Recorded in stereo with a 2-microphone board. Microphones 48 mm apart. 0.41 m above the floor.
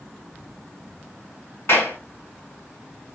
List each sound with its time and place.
1.7 s a clap: 60° left (ahead or behind), 2 m